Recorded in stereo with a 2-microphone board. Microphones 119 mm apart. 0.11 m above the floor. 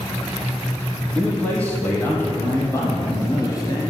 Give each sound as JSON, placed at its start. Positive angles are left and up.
{"t": 1.1, "sound": "a man speaking", "side_deg": 10, "distance_m": 4.0}